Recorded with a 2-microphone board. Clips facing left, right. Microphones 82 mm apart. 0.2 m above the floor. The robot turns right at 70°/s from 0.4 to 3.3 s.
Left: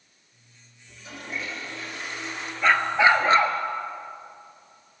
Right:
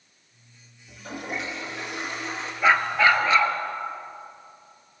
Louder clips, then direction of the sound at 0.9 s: Right 4 dB; 140° right.